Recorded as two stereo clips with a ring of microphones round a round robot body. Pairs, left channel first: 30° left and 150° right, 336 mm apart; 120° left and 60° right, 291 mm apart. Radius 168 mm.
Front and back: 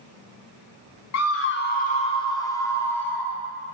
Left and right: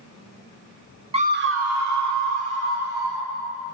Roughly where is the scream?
Ahead.